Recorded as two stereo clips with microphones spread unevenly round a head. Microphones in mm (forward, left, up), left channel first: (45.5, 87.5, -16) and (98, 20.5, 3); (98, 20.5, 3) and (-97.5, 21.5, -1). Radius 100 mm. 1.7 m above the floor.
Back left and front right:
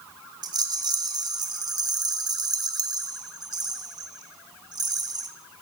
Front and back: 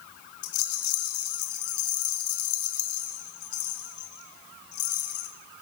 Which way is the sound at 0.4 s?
20° right.